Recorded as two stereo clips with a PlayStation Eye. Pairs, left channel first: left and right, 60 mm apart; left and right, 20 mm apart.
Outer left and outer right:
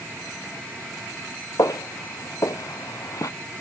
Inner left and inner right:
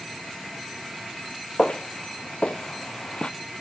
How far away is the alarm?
I don't hear an alarm.